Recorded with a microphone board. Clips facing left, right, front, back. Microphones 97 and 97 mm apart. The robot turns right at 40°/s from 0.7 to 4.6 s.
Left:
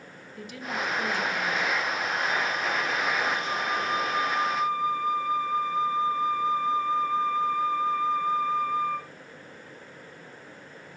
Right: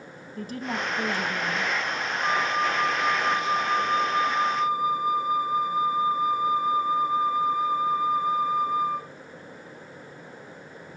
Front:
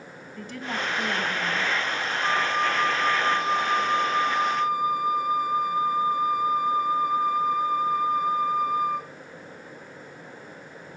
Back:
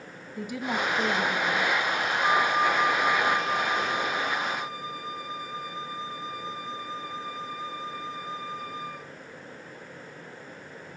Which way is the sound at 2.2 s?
110° right.